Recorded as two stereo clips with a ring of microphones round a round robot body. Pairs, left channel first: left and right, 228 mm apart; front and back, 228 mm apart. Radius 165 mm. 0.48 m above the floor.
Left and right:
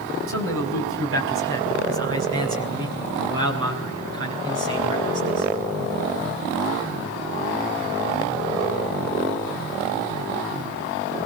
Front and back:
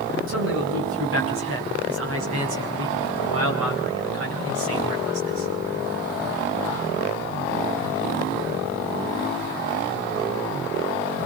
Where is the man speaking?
130° right, 5 m; by 5.5 s 145° right, 7.5 m.